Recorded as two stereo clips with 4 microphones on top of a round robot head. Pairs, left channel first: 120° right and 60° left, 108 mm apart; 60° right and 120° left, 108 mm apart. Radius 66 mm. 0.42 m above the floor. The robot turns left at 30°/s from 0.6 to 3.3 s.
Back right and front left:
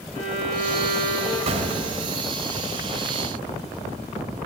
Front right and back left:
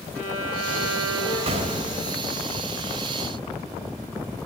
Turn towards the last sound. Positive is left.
turn(degrees=35)